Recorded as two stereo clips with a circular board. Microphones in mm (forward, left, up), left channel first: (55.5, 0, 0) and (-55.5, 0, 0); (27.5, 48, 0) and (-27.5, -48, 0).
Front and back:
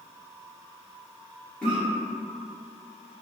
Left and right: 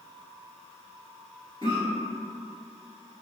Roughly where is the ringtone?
No ringtone in this recording.